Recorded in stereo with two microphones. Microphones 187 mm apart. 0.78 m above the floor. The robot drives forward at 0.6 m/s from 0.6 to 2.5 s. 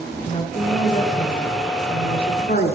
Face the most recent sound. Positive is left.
turn(degrees=60)  # may be behind; listen again after turning